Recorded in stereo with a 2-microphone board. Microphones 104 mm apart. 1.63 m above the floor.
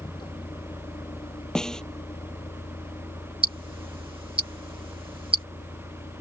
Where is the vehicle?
45° left (ahead or behind); by 6.2 s 70° left (ahead or behind).